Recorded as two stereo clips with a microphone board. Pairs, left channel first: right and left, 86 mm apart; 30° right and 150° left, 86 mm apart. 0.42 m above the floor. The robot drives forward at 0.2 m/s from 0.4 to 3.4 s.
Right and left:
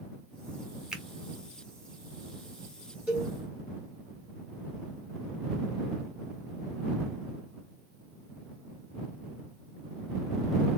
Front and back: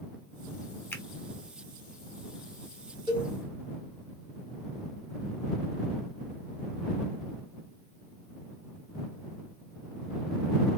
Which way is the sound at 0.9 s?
10° left.